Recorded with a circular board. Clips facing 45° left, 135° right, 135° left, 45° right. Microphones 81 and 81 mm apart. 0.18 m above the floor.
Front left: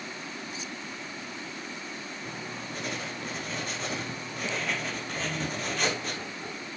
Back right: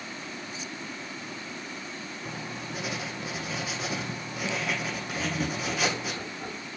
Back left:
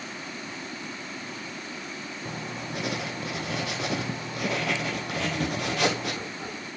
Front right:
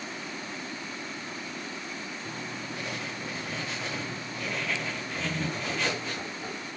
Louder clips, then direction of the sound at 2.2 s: Back right 2 dB, back left 4 dB; 140° left.